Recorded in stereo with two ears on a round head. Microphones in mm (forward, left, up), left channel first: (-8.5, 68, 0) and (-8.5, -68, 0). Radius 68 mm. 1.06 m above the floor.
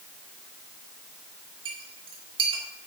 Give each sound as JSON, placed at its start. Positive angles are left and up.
{"t": 1.6, "sound": "a clink", "side_deg": -35, "distance_m": 1.6}